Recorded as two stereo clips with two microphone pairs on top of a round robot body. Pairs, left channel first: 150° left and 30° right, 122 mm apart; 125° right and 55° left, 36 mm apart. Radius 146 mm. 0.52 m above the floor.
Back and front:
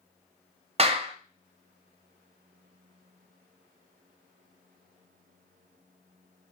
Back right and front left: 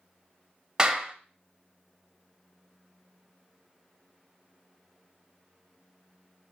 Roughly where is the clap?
Ahead.